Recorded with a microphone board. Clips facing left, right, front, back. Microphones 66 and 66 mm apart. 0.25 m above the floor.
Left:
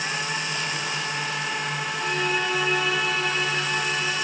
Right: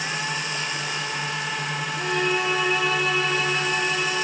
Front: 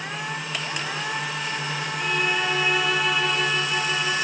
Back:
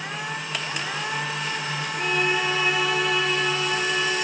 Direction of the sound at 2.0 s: 115° right.